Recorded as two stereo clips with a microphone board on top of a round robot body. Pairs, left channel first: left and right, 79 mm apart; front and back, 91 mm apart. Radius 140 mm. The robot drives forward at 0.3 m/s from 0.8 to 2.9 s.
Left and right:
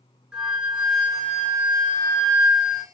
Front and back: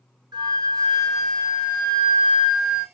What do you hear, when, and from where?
0.3 s a flute: 170° right, 2 m